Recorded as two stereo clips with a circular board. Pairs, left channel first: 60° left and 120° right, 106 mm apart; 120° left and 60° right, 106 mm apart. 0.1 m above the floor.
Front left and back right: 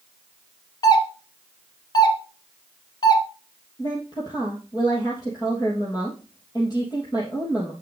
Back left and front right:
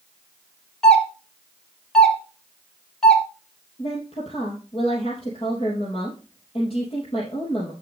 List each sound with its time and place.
0.8 s a doorbell: 40° left, 1.9 m
3.8 s a woman speaking: 105° left, 3 m